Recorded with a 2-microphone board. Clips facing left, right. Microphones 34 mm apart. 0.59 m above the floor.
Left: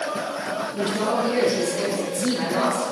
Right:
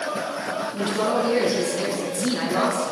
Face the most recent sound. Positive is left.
turn(degrees=-35)  # may be behind; listen again after turning